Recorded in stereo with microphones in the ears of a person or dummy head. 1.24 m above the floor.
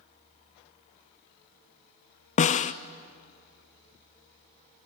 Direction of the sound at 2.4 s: 40° left (ahead or behind).